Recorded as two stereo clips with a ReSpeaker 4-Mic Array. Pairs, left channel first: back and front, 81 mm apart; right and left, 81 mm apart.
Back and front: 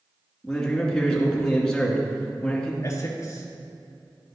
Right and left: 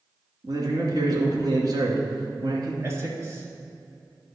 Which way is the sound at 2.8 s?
135° left.